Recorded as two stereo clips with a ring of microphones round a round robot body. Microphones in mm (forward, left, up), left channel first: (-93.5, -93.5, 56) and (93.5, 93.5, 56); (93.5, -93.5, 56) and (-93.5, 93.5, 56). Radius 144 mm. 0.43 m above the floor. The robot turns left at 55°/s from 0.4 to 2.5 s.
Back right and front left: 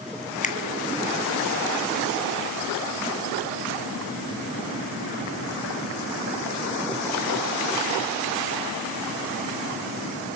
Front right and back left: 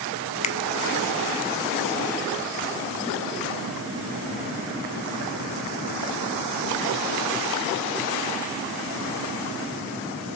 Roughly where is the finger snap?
Right.